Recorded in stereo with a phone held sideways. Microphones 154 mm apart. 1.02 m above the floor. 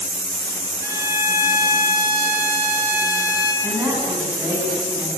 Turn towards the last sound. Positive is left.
turn(degrees=-15)  # may be behind; listen again after turning